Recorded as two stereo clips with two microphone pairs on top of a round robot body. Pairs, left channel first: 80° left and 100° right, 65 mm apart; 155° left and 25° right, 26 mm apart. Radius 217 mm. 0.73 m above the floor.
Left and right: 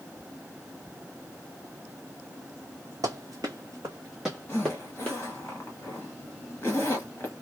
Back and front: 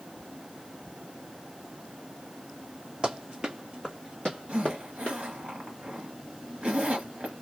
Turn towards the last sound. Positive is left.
turn(degrees=30)